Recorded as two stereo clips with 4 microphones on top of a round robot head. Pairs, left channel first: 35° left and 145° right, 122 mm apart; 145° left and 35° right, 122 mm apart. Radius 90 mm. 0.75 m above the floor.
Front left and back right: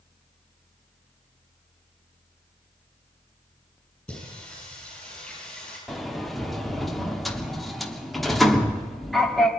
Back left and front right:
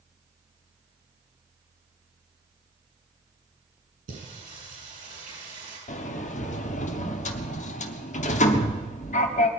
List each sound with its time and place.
4.1 s singing: 50° right, 9 m
5.9 s a sliding door: 125° left, 1.2 m